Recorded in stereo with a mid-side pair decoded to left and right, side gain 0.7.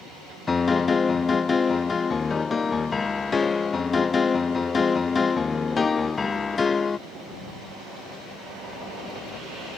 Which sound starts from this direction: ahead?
A piano, at 0.5 s.